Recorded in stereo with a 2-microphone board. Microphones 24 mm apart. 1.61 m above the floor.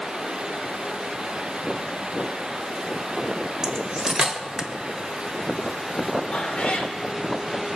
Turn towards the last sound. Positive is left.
turn(degrees=55)  # may be behind; listen again after turning